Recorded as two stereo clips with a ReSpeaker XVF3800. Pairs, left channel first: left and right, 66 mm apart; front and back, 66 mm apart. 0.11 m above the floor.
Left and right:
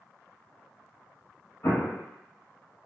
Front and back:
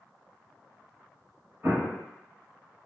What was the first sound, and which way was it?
An explosion, 130° left.